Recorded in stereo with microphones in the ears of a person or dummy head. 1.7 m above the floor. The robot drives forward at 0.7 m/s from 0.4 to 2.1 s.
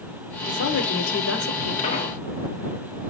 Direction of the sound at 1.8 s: 30° left (ahead or behind).